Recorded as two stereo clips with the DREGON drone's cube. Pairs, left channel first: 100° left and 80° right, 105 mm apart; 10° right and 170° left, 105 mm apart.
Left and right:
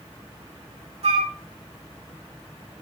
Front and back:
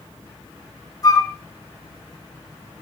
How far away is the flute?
About 1.1 m.